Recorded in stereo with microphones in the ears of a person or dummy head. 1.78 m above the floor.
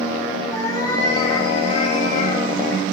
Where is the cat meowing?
20° left (ahead or behind), 4 m; by 2.8 s 60° left (ahead or behind), 4 m.